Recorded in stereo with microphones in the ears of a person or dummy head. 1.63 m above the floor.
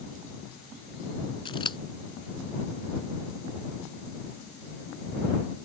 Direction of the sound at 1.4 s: 30° left (ahead or behind).